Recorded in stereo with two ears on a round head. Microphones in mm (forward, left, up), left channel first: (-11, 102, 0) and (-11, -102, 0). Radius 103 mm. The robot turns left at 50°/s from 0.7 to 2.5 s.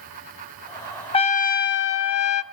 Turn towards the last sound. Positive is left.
turn(degrees=85)